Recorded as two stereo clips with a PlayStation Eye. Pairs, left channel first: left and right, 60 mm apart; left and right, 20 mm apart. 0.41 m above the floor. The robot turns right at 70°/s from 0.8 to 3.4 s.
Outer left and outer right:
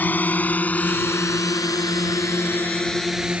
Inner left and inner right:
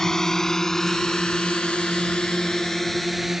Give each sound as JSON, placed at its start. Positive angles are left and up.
{"t": 0.0, "sound": "a drone", "side_deg": 30}